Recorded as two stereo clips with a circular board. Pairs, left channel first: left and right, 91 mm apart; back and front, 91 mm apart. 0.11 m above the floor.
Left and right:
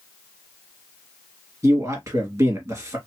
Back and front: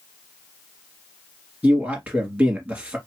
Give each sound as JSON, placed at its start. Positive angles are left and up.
{"t": 1.6, "sound": "a man speaking", "azimuth_deg": -70, "distance_m": 1.8}